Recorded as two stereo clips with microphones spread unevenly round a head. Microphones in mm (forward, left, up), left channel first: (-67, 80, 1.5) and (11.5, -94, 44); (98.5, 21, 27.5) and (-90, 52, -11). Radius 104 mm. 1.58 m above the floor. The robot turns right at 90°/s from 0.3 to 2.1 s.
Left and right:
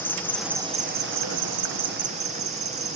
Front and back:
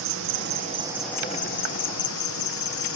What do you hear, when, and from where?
0.0 s an insect: 165° right; by 3.0 s 5° right